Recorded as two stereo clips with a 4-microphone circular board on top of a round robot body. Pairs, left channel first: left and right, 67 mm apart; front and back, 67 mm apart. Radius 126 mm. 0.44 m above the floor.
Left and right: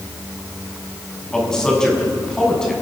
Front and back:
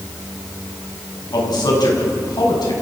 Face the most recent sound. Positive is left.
turn(degrees=10)